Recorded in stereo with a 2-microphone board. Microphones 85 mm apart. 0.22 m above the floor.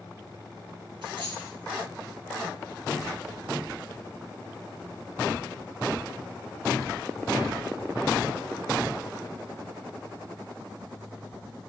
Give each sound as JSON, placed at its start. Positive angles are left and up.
{"t": 1.0, "sound": "a dropped coin", "side_deg": -80, "distance_m": 1.4}